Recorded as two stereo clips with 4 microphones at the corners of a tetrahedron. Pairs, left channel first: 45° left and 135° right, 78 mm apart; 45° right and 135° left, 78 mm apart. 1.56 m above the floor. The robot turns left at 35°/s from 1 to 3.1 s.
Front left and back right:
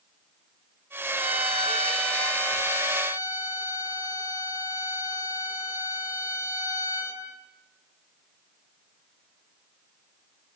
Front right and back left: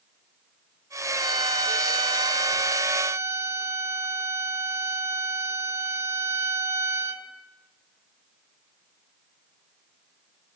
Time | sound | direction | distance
1.1 | a violin | 155° left | 3 m